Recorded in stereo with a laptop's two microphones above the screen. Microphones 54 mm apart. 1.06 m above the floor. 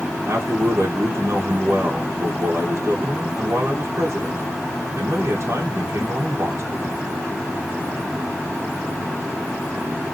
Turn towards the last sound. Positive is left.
turn(degrees=-55)  # may be behind; listen again after turning